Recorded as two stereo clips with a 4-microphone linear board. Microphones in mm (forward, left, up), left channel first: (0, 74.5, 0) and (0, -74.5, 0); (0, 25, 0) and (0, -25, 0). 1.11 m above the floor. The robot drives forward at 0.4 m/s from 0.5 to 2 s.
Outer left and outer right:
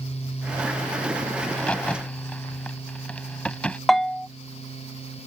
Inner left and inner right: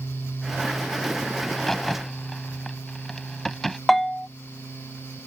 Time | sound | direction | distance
1.4 | a crack | 5° left (ahead or behind) | ?
3.9 | a bell | 5° left (ahead or behind) | ?